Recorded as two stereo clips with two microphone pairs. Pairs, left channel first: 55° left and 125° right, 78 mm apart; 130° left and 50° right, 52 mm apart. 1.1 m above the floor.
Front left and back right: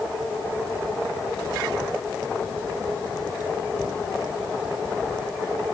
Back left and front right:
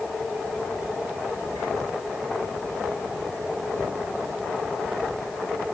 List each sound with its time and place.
Only background noise.